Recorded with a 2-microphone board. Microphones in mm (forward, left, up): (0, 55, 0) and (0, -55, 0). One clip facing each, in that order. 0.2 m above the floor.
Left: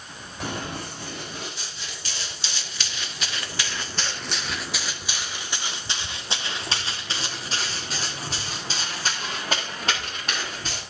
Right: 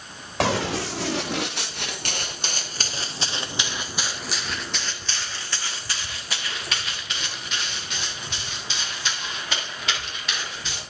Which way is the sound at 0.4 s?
80° right.